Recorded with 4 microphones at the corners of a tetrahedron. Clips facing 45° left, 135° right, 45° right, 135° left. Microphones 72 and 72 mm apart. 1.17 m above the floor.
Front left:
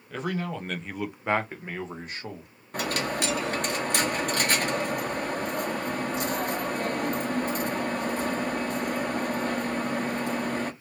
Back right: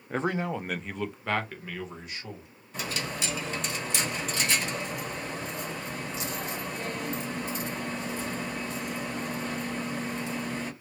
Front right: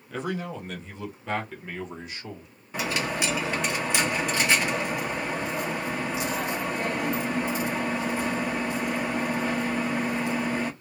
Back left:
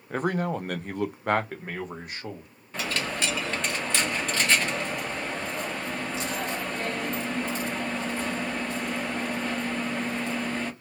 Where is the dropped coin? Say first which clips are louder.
Front left 6 dB, front right 2 dB; 30° left, 0.8 m.